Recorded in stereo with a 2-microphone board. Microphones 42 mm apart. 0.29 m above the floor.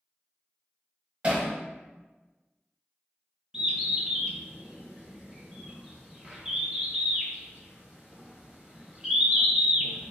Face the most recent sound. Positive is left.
turn(degrees=-20)  # may be behind; listen again after turning